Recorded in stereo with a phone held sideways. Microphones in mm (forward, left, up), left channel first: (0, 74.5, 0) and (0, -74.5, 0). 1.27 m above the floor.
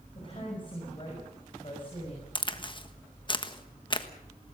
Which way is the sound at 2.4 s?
35° left (ahead or behind).